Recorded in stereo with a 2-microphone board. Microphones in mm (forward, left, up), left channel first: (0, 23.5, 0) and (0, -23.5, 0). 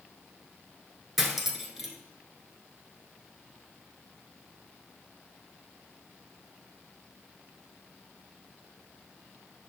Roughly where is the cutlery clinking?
Centre.